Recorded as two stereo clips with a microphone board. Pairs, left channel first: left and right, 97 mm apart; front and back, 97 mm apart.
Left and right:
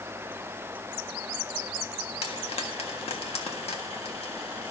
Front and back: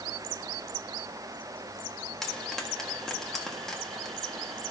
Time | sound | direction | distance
2.2 | frying | 85° left | 1.6 m